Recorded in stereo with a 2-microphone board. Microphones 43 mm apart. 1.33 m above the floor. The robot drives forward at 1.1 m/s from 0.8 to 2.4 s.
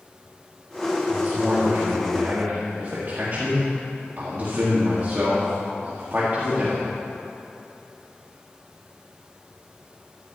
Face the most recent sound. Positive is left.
turn(degrees=-50)  # may be behind; listen again after turning